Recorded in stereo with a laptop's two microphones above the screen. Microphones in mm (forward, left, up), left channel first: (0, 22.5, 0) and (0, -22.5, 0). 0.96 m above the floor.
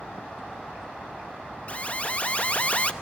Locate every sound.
1.7 s an alarm: 35° left (ahead or behind), 0.8 m